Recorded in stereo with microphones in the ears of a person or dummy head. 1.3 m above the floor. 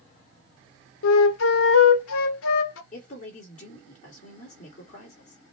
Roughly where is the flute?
Left.